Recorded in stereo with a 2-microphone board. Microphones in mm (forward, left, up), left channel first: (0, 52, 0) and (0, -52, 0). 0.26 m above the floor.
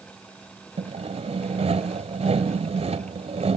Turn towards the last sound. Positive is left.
turn(degrees=-75)  # may be behind; listen again after turning